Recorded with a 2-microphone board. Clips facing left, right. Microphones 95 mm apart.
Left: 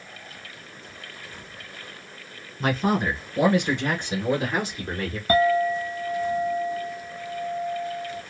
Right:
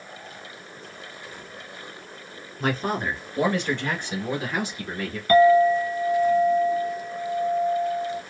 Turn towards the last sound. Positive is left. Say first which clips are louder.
# right 5 dB
turn(degrees=25)  # may be behind; listen again after turning